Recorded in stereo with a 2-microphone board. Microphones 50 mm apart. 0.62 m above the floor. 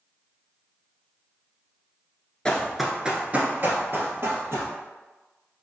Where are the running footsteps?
15° left (ahead or behind), 0.6 m; by 4.7 s 65° right (ahead or behind), 1.2 m.